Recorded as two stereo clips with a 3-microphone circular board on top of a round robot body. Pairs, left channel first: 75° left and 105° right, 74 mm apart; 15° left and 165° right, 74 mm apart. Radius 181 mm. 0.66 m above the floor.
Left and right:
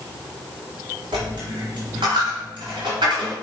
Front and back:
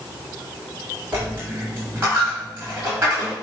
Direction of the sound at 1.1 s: 100° right.